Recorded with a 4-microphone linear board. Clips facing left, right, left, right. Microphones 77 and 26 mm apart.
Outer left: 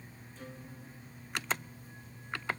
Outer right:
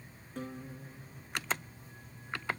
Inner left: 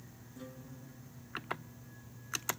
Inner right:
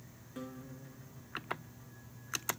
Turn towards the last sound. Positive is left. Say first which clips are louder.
# outer right 7 dB, inner right 4 dB
turn(degrees=-60)  # may be behind; listen again after turning